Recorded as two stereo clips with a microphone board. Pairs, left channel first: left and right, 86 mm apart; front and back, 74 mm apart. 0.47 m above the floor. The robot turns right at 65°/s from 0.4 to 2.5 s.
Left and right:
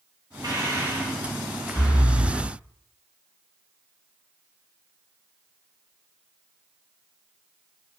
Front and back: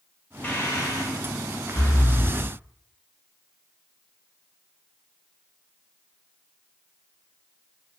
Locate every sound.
0.4 s breathing: 60° right, 0.9 m; by 2.4 s 65° left, 0.9 m